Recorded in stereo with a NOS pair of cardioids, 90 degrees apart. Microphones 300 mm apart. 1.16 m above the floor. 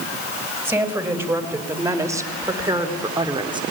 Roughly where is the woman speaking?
Ahead.